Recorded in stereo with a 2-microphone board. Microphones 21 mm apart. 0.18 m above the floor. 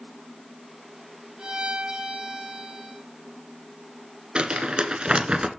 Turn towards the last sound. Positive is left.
turn(degrees=-55)  # may be behind; listen again after turning